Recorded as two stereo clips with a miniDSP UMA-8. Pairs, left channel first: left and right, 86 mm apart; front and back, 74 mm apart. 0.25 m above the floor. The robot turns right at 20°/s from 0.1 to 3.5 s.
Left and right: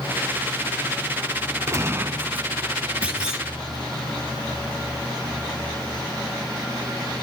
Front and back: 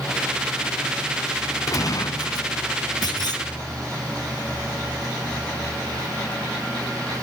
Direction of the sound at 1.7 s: 35° right.